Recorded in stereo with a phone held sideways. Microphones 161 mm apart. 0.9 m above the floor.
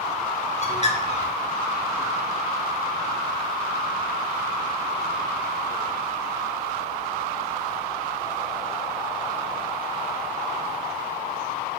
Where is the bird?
45° left (ahead or behind), 0.9 m.